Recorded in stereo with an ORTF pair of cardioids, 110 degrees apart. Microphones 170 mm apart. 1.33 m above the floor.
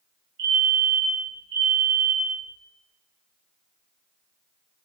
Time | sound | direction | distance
0.4 | a fire alarm | 70° right | 3 m